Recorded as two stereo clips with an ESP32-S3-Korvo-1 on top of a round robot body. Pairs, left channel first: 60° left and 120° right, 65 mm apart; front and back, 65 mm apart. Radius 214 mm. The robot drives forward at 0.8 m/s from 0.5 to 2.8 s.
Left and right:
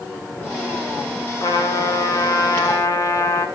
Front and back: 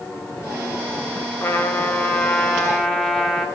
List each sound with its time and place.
1.4 s a trumpet: 55° left, 2 m; by 3.5 s 90° left, 1.8 m